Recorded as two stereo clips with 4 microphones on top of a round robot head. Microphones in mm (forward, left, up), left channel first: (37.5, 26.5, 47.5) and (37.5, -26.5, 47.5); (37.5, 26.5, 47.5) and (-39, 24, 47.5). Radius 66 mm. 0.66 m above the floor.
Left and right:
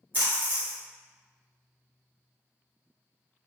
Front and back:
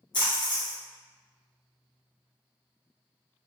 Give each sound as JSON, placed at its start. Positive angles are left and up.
{"t": 0.1, "sound": "a splash", "azimuth_deg": -30, "distance_m": 1.4}